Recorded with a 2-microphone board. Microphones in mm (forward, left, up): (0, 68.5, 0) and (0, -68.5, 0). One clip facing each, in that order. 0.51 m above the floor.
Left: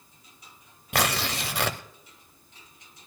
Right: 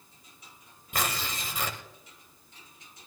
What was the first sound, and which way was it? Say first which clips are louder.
Tearing paper: left 6 dB; 75° left (ahead or behind).